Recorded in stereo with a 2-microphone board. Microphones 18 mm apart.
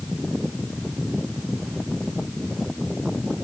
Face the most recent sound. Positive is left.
No sound to turn to.